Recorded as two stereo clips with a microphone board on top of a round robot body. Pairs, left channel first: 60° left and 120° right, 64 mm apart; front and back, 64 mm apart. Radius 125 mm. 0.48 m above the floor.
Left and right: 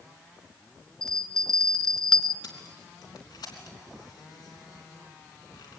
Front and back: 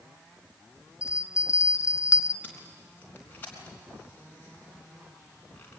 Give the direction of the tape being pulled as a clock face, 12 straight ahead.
10 o'clock.